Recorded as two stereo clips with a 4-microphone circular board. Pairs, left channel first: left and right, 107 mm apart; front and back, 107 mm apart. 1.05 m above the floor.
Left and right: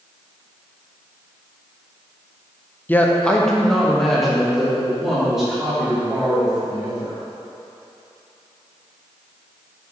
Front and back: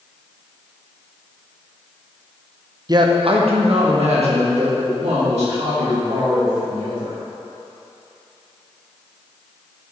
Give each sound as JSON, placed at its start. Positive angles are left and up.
{"t": 2.9, "sound": "a man speaking", "azimuth_deg": 155, "distance_m": 0.6}